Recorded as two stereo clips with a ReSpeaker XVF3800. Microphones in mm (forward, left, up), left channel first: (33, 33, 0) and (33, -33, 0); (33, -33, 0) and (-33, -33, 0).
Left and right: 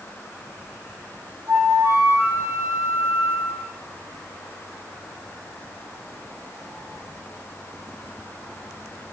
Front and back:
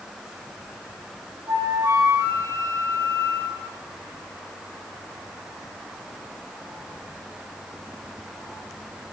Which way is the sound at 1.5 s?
145° right.